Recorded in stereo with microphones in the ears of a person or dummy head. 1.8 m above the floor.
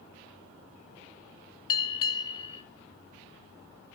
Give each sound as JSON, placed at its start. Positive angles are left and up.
{"t": 1.7, "sound": "a bell", "side_deg": 30, "distance_m": 1.9}